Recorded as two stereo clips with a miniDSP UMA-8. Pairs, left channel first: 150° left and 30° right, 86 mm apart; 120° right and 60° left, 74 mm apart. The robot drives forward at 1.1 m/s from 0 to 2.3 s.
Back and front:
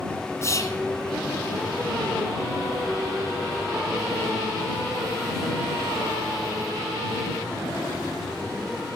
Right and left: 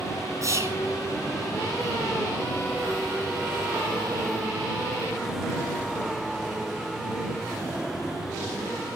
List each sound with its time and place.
0.4 s whispering: 100° left, 2 m; by 0.8 s 110° left, 2 m